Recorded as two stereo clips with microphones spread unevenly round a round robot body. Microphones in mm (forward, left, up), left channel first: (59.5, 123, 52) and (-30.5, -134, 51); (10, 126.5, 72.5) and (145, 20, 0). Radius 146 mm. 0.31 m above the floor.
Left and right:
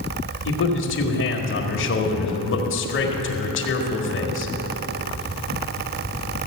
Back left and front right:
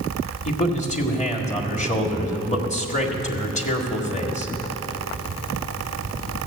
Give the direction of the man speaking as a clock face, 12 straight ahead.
9 o'clock.